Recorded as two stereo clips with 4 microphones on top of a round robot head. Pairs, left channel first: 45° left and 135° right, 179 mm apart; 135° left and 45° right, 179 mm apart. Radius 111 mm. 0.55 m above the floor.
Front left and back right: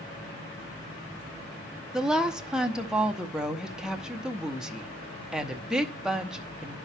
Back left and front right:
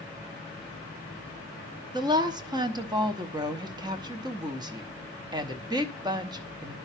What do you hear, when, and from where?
1.9 s a woman speaking: 55° right, 0.9 m